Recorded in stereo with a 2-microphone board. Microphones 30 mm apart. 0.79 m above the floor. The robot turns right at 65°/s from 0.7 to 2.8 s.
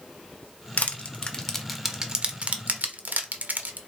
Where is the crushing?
60° left (ahead or behind), 0.5 m; by 3.8 s 70° right (ahead or behind), 0.5 m.